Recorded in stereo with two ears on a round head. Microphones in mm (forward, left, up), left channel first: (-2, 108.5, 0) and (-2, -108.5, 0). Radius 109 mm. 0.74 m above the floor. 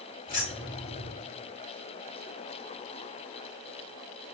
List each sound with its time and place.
0.3 s keys jangling: 35° left (ahead or behind), 1.4 m